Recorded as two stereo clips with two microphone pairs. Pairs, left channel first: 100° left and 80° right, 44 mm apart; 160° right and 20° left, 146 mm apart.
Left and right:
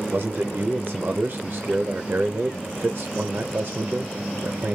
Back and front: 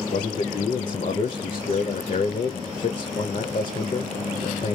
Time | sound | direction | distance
0.1 | a man speaking | 130° right | 0.7 m